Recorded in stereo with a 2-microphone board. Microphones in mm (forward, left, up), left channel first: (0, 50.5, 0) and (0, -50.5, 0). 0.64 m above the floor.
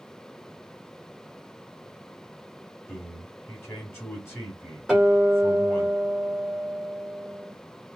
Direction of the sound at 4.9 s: 5° right (ahead or behind).